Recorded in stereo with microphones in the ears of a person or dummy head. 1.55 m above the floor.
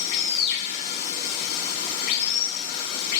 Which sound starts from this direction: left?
Running water, at 0.0 s.